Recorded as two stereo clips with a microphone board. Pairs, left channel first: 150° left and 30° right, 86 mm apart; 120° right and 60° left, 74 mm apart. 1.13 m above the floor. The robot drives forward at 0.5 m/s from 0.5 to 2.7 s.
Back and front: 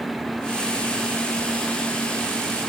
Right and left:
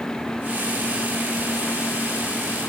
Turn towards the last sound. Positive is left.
No sound to turn to.